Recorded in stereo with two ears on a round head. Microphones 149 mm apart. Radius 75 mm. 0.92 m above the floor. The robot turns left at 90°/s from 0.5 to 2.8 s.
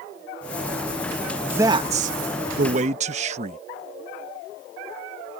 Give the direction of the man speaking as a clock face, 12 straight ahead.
12 o'clock.